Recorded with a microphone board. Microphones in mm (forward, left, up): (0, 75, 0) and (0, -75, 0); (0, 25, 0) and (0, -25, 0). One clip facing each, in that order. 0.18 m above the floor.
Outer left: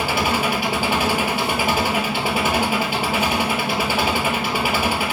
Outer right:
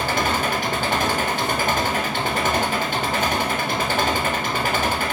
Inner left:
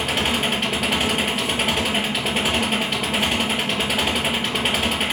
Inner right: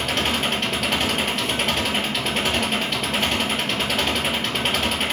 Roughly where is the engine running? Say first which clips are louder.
Outer left 1 dB, inner left 1 dB; centre.